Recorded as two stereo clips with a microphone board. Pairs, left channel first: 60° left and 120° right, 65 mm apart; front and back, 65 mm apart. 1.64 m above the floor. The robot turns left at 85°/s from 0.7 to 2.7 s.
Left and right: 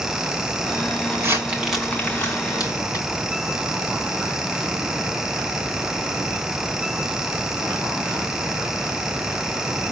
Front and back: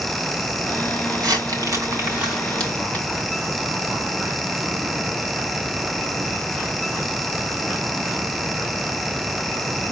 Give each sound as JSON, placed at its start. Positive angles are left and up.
{"t": 1.1, "sound": "crumpling", "azimuth_deg": -155, "distance_m": 4.0}